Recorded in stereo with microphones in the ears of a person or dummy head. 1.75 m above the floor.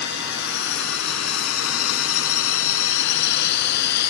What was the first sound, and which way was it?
A drone, 60° left (ahead or behind).